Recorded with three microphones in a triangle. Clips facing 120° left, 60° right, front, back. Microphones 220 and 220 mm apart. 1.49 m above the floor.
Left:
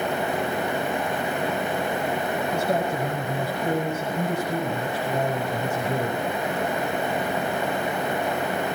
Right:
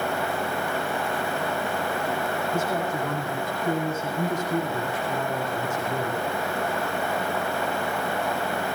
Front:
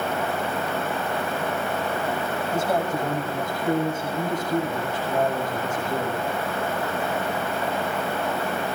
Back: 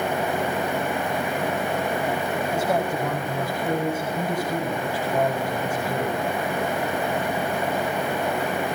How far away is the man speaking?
About 6.5 m.